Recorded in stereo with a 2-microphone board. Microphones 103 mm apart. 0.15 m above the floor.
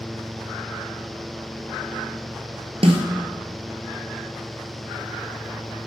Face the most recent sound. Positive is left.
turn(degrees=-65)  # may be behind; listen again after turning